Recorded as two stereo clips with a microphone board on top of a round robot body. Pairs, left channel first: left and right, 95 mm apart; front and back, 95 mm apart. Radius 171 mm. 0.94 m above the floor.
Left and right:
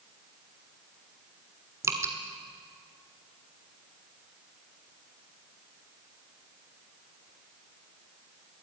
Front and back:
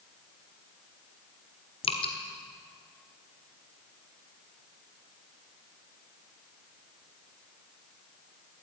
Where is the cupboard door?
No cupboard door in this recording.